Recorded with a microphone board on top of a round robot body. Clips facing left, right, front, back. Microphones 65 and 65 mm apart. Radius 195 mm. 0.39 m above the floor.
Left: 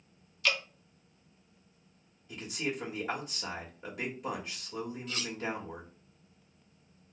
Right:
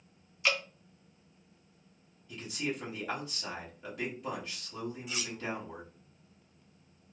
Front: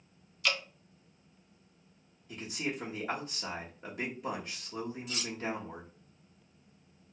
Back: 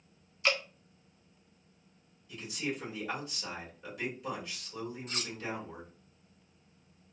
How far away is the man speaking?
About 1.3 m.